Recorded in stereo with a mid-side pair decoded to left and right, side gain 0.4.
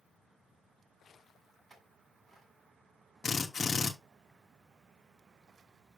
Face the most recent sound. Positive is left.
turn(degrees=35)